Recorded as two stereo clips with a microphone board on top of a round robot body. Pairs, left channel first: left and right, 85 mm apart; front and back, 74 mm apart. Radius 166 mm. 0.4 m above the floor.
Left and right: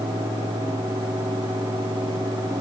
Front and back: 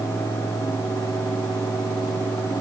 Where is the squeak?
I don't hear a squeak.